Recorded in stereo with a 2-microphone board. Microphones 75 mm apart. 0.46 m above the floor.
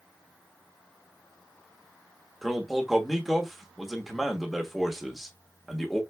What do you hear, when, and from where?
2.4 s a man speaking: centre (ahead or behind), 0.8 m